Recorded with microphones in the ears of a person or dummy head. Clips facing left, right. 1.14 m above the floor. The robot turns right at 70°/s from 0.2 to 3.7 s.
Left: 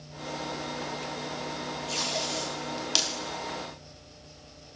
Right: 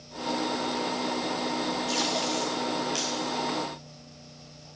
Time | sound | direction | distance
1.9 | tape being pulled | 25° right (ahead or behind) | 1.5 m